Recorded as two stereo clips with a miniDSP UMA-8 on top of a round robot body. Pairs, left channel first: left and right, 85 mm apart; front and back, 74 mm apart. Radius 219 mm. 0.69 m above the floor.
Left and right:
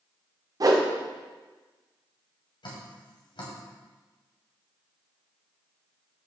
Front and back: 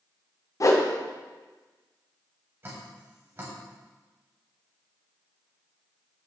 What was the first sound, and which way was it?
A whoosh, 45° right.